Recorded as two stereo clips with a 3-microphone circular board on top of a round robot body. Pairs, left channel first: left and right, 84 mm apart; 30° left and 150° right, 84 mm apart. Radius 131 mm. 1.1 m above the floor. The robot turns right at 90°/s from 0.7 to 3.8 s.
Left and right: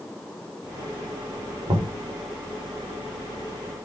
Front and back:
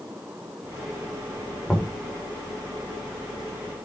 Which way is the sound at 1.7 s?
55° right.